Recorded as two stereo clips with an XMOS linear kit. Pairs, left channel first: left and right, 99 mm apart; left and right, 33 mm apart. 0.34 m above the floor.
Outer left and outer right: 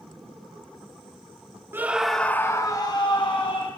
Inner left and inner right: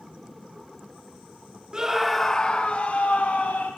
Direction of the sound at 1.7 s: 20° right (ahead or behind).